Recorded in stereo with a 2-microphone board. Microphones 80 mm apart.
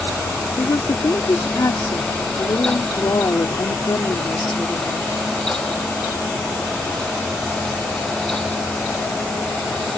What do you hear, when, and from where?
0.6 s a woman speaking: 50° left (ahead or behind)